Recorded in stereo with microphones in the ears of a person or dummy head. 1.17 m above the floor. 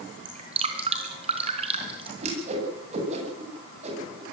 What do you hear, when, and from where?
0.2 s dripping: 45° right (ahead or behind), 3.5 m
2.2 s a whoosh: 50° right (ahead or behind), 9.5 m